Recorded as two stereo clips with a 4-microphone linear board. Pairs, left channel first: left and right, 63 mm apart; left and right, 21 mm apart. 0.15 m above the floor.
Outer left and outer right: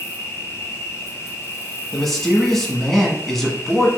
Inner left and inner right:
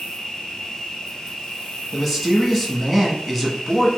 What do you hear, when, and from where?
0.0 s an insect: 45° left (ahead or behind), 1.0 m
1.9 s a man speaking: 5° left (ahead or behind), 1.1 m